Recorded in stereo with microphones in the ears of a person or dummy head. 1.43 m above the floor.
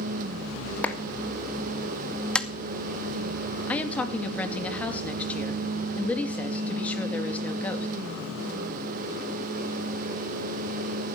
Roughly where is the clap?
Centre.